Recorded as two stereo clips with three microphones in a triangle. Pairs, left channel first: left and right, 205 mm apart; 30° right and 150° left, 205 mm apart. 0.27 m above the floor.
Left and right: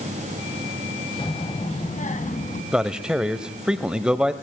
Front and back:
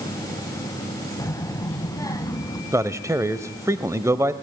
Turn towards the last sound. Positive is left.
turn(degrees=-165)